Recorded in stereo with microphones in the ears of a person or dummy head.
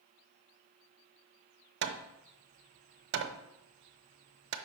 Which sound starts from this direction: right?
Hammering, at 1.8 s.